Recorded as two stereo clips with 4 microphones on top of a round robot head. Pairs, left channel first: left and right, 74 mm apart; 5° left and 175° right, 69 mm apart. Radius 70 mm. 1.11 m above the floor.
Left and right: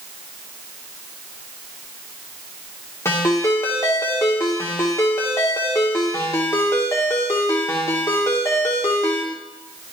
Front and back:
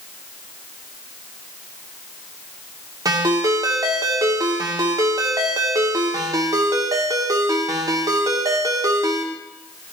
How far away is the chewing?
I don't hear chewing.